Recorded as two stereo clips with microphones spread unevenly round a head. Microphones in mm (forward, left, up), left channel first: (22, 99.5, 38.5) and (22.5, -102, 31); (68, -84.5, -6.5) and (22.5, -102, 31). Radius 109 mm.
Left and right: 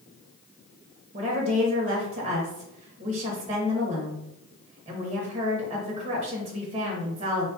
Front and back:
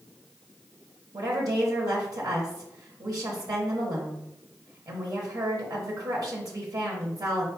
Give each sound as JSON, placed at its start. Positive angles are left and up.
{"t": 1.1, "sound": "a woman speaking", "azimuth_deg": -145, "distance_m": 0.9}